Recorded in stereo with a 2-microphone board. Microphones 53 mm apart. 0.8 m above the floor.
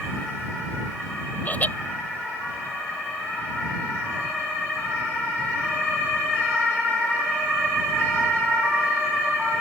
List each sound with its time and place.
1.4 s laughter: 30° left (ahead or behind)